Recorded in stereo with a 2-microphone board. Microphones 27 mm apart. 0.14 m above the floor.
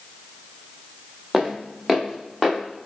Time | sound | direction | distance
1.3 | footsteps | 5° right (ahead or behind) | 1.5 m